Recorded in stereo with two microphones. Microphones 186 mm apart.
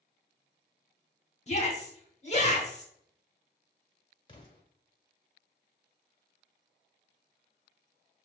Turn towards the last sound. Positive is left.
turn(degrees=25)  # may be behind; listen again after turning